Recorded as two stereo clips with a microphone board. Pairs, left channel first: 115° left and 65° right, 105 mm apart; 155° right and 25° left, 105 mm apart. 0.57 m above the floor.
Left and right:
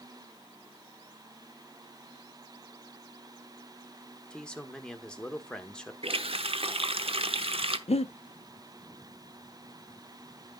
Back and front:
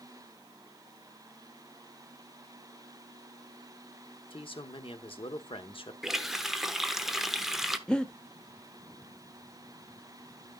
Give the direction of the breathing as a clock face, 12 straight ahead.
8 o'clock.